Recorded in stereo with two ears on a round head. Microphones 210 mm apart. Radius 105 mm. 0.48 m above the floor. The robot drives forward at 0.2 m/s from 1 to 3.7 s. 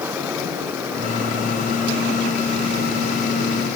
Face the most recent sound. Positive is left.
No sound to turn to.